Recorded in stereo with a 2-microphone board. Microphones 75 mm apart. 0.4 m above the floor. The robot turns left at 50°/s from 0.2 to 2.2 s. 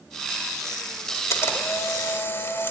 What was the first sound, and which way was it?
A camera shutter, 100° left.